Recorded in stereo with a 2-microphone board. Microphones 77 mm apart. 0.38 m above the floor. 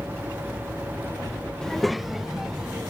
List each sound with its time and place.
1.6 s a child speaking: 10° left (ahead or behind); by 2.8 s 5° right (ahead or behind)